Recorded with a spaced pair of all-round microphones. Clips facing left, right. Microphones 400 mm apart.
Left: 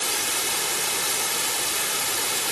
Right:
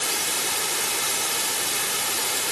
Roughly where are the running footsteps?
No running footsteps in this recording.